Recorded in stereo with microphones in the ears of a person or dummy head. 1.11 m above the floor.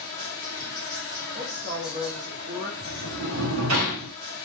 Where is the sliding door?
70° right (ahead or behind), 0.8 m.